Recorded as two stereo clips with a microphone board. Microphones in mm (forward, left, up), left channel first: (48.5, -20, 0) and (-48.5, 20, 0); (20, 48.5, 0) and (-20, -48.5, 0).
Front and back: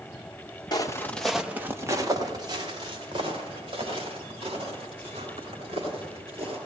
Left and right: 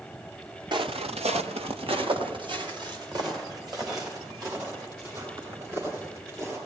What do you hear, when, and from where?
0.7 s footsteps: 70° right, 1.1 m; by 6.6 s 175° right, 8 m